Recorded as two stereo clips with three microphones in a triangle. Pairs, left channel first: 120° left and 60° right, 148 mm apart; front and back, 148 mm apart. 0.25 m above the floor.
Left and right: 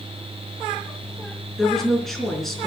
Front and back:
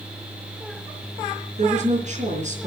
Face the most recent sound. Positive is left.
turn(degrees=-150)